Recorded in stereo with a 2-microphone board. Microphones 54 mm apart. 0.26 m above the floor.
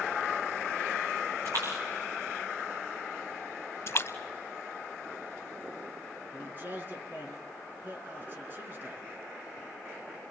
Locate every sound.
1.4 s a splash: 85° right, 6.5 m
3.9 s a splash: 45° left (ahead or behind), 0.8 m
6.3 s a man speaking: 35° right (ahead or behind), 3.5 m